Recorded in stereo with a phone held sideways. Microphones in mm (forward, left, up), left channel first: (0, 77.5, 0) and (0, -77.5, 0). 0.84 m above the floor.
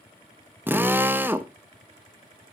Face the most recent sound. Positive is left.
turn(degrees=-15)  # may be behind; listen again after turning